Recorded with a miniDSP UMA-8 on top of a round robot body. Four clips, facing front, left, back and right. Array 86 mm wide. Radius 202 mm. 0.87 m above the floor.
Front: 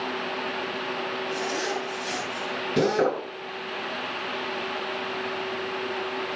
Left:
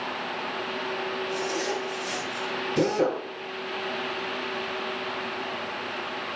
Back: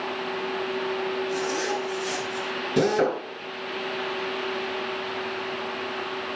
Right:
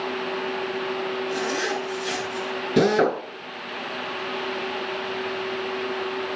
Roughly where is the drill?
Right.